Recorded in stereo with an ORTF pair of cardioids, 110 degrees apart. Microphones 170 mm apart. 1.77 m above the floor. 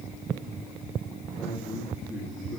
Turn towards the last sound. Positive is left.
turn(degrees=0)